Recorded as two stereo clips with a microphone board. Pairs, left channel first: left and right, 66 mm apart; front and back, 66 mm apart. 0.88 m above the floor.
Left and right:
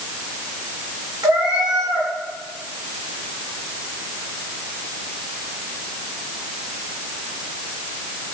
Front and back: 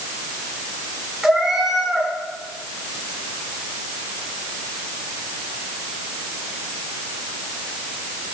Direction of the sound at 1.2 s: 90° right.